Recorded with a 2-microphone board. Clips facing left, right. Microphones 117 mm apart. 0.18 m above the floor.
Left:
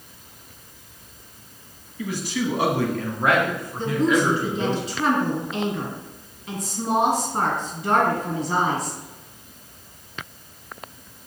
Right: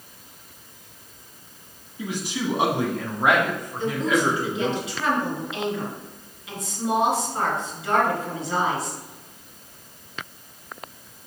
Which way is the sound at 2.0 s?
20° right (ahead or behind).